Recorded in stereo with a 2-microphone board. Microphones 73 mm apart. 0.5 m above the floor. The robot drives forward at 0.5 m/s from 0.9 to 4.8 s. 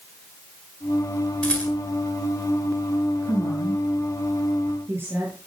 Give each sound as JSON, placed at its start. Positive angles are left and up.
{"t": 1.4, "sound": "a rattle", "side_deg": 15, "distance_m": 7.0}
{"t": 3.2, "sound": "a woman speaking", "side_deg": -30, "distance_m": 8.0}